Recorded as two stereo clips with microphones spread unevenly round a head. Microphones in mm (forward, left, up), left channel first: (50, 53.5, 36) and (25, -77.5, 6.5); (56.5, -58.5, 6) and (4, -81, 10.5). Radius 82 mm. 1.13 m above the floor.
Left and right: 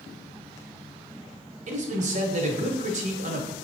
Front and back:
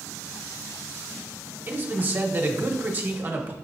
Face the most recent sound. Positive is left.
turn(degrees=-100)